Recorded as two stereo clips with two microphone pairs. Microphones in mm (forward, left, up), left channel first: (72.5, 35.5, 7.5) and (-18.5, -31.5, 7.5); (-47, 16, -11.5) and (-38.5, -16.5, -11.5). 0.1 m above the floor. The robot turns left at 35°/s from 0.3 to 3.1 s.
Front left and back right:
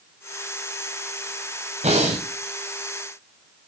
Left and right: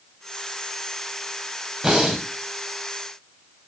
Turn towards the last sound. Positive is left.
turn(degrees=175)